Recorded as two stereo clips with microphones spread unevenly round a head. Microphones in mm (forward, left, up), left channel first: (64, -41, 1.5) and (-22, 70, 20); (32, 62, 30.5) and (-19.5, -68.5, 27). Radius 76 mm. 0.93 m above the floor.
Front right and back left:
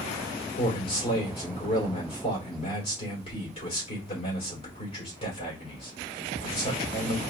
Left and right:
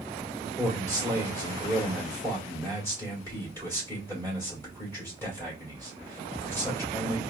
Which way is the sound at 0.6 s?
5° right.